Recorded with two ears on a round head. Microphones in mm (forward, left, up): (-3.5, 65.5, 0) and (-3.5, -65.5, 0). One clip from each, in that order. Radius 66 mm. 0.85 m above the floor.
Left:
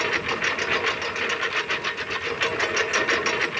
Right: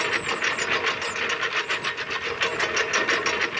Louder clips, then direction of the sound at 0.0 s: Even; 10° right (ahead or behind).